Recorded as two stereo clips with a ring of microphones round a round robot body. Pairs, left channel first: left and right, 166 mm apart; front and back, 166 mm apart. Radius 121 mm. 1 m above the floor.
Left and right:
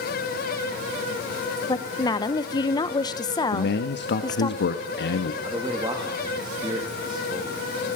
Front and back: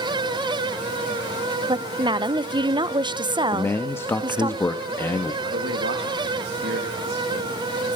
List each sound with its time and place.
1.7 s a woman speaking: 140° left, 0.7 m
3.5 s a man speaking: 75° left, 1.1 m
5.4 s a man speaking: 160° right, 2 m